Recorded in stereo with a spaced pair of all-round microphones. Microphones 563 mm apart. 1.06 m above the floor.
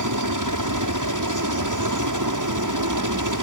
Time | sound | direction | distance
0.0 | a helicopter | 30° right (ahead or behind) | ?